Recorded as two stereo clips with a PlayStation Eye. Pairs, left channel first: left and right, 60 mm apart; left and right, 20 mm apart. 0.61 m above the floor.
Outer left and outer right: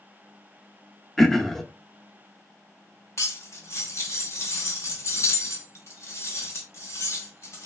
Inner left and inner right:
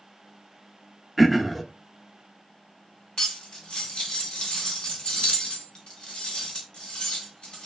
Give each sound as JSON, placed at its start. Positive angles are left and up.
{"t": 1.2, "sound": "throat clearing", "side_deg": 5, "distance_m": 0.5}
{"t": 3.2, "sound": "cutlery clinking", "side_deg": 50, "distance_m": 1.1}